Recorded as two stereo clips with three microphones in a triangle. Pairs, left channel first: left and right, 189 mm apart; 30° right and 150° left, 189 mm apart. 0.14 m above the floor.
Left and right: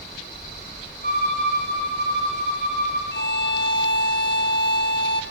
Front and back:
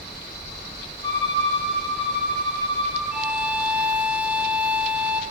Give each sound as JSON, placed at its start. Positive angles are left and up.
{"t": 1.0, "sound": "a violin", "azimuth_deg": 40, "distance_m": 6.5}
{"t": 3.1, "sound": "a violin", "azimuth_deg": 65, "distance_m": 0.7}